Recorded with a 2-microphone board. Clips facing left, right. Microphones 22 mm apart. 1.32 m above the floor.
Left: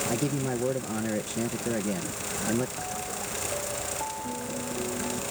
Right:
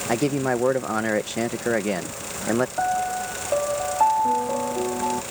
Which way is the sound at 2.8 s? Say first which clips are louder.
Right 11 dB; 75° right (ahead or behind).